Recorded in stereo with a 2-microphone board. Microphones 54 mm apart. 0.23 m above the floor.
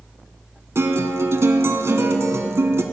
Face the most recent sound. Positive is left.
turn(degrees=-55)  # may be behind; listen again after turning